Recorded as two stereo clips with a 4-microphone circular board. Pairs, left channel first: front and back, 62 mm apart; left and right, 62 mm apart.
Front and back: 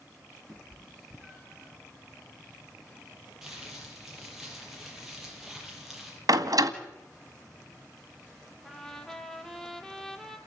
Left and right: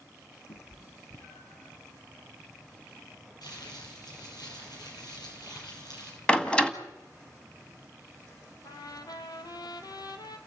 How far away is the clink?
I don't hear a clink.